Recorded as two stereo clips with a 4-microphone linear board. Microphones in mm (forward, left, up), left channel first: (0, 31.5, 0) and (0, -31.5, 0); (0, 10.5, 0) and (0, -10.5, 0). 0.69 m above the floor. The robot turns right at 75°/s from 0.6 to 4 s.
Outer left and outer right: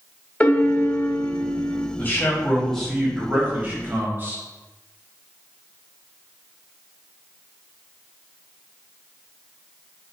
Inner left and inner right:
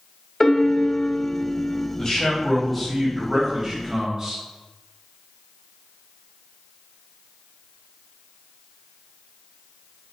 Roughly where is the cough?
No cough in this recording.